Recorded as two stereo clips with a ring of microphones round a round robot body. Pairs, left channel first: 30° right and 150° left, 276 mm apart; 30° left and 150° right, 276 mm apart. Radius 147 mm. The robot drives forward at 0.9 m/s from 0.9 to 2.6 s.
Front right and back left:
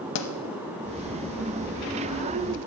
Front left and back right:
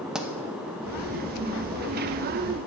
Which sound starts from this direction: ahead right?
A pop, at 0.1 s.